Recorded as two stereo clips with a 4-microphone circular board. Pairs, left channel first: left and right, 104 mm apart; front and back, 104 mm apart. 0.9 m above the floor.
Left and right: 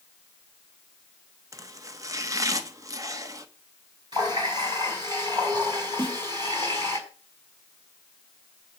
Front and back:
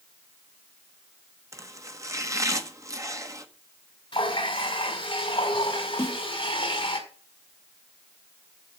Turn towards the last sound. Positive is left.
turn(degrees=-65)